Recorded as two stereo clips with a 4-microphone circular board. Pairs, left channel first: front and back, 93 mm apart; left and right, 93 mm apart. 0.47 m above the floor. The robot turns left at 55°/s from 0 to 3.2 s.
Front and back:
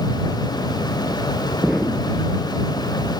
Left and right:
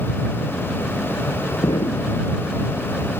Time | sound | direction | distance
1.6 | an explosion | 100° left | ?